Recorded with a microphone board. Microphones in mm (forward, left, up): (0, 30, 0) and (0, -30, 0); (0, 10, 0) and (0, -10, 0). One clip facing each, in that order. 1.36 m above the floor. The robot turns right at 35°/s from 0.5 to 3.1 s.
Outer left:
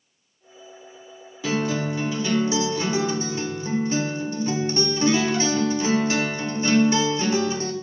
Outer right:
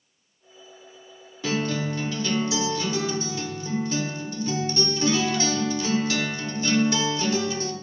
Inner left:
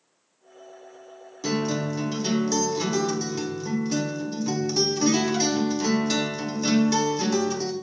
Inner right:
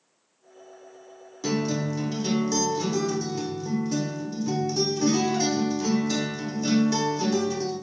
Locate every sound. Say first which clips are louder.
1.4 s a guitar: outer left 2 dB, inner left 1 dB; 5° left, 1.1 m; by 7.7 s 60° left, 1.1 m